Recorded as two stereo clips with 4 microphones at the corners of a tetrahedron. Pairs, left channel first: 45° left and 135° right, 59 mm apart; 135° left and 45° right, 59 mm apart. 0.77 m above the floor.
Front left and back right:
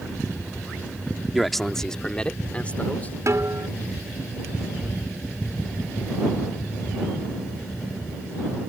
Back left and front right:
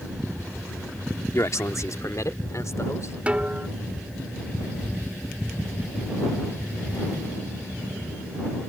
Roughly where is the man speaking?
Behind left.